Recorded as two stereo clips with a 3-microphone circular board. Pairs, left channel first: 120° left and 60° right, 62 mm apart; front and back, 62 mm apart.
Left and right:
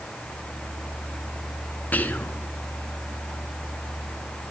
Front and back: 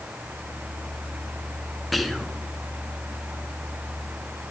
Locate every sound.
1.9 s whispering: 90° left, 1.4 m